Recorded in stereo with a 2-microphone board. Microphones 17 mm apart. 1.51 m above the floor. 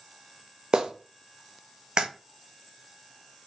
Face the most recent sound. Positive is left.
turn(degrees=-55)  # may be behind; listen again after turning